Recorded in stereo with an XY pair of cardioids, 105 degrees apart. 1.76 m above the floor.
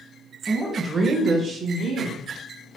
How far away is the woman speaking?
About 1.1 m.